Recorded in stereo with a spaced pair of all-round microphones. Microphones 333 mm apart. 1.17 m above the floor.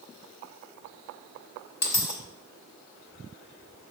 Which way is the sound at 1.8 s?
55° left (ahead or behind).